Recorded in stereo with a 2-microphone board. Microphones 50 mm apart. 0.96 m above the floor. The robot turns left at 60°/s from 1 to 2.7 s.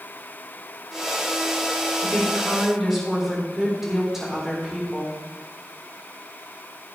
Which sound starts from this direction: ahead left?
A woman speaking, at 2.0 s.